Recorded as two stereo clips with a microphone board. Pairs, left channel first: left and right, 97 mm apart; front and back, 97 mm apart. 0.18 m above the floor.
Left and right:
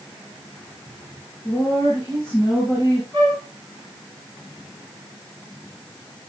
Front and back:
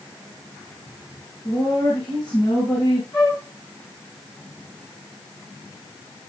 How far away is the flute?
About 4.5 m.